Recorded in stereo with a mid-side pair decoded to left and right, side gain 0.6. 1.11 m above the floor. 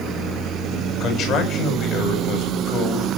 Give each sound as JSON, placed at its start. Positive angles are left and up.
{"t": 1.0, "sound": "a man speaking", "azimuth_deg": 55, "distance_m": 7.5}